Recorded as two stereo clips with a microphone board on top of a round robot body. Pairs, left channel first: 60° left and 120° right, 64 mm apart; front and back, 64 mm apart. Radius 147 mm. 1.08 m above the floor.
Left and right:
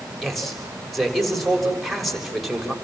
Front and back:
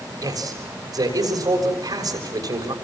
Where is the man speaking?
150° left, 6.5 m.